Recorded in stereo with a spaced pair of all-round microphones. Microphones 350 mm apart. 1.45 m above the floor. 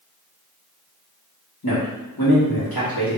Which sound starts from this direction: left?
A man speaking, at 1.6 s.